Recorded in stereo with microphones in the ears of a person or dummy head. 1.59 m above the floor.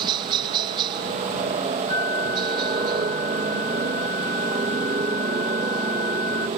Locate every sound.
0.0 s a helicopter: 30° right (ahead or behind)
1.9 s a flute: 20° left (ahead or behind)